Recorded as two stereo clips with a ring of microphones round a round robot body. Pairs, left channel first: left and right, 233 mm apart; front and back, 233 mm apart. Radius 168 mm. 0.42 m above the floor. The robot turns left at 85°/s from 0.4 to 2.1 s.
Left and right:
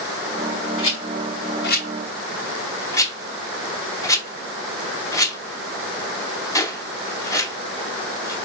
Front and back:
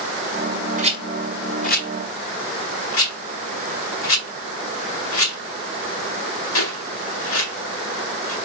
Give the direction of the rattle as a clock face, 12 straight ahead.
8 o'clock.